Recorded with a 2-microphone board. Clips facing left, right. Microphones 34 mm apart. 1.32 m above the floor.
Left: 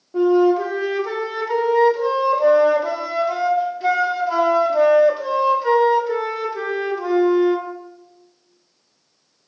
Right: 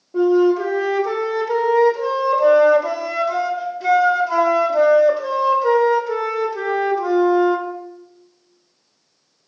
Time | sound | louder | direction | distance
0.1 | a flute | even | 15° left (ahead or behind) | 0.9 m